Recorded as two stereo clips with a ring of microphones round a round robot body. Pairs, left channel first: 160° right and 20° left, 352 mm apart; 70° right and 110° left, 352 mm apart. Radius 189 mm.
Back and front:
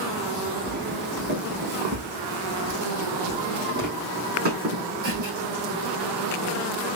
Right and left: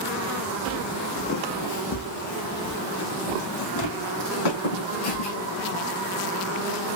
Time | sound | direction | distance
0.7 | footsteps | 10° right | 0.7 m